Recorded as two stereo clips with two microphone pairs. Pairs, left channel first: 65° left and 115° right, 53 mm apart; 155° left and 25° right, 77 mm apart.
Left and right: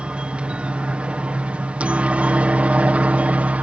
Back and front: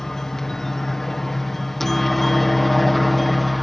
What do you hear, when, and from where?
0.0 s a helicopter: 130° right; by 3.6 s 115° right